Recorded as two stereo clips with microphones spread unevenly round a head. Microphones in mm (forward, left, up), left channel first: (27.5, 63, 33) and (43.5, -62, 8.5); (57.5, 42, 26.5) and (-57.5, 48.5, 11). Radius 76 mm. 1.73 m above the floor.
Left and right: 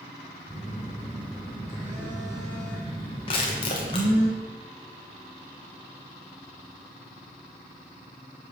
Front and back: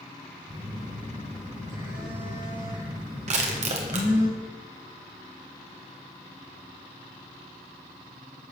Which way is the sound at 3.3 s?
155° left.